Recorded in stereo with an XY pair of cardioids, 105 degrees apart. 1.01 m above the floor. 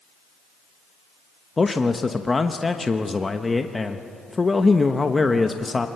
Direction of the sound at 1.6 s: 20° left.